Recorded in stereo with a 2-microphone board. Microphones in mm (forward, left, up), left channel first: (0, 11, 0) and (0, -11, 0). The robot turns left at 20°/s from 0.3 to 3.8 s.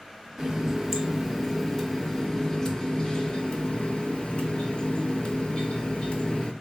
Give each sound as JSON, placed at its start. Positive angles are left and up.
{"t": 0.4, "sound": "a running tap", "azimuth_deg": -160, "distance_m": 0.8}